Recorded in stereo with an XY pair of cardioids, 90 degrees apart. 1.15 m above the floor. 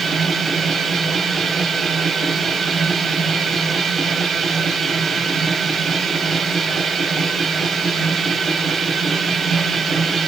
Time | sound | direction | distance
0.0 | a machine running | 60° right | 2.5 m